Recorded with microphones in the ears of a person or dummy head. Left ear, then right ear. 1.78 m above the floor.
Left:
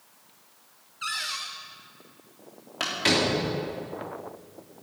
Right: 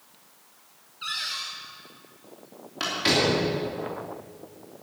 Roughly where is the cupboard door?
Left.